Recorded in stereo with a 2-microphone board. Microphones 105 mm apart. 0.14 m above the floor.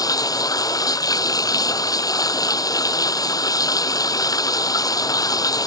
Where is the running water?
35° left (ahead or behind).